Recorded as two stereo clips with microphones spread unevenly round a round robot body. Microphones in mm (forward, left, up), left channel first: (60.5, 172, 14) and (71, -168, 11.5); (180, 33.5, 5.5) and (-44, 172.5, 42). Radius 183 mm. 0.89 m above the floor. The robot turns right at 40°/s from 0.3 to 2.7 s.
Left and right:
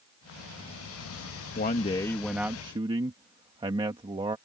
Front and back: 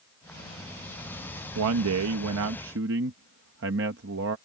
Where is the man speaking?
150° left; by 4.4 s 165° right.